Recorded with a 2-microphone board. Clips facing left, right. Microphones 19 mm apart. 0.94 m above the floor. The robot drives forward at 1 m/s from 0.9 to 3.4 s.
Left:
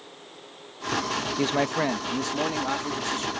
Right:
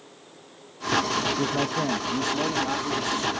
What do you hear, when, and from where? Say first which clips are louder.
1.4 s a man speaking: left 1 dB; 50° left (ahead or behind); by 3.3 s 15° left (ahead or behind)